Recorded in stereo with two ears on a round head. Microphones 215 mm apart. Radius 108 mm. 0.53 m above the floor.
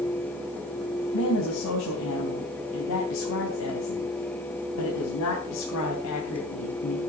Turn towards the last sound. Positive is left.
turn(degrees=75)  # may be behind; listen again after turning